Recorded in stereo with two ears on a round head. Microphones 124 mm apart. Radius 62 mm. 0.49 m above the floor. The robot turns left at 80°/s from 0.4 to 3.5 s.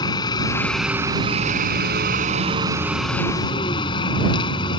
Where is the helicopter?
30° left; by 4.8 s 145° left.